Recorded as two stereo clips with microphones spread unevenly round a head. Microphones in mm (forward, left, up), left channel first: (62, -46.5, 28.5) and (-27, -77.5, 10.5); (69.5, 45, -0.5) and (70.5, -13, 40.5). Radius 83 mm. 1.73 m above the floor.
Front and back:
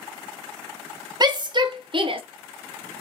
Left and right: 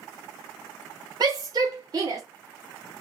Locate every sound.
1.2 s a shout: 115° right, 1.8 m; by 2.2 s 130° right, 1.2 m